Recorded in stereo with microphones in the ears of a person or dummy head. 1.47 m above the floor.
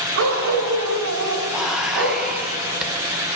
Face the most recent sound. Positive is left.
turn(degrees=-5)  # may be behind; listen again after turning